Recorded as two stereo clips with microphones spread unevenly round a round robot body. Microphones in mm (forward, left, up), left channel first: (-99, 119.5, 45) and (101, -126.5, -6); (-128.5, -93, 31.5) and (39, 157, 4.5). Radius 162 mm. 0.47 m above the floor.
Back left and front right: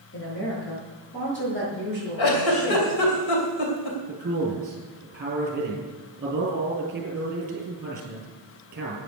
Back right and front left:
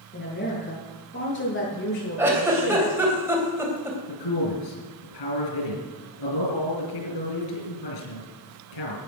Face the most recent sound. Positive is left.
turn(degrees=-115)